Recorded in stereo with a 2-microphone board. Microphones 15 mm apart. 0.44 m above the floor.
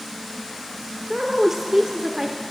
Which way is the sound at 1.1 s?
30° right (ahead or behind).